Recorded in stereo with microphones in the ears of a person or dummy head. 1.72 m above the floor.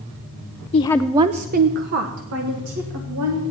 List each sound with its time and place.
0.7 s a woman speaking: 30° left (ahead or behind), 0.6 m; by 3.4 s 70° right (ahead or behind), 2.5 m